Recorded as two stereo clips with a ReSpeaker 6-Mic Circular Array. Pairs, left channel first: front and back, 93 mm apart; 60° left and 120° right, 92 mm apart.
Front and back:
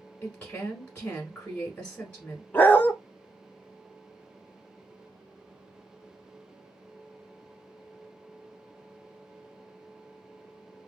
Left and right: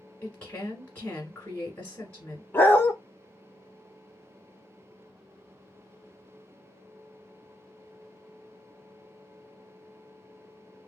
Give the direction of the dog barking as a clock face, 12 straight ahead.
11 o'clock.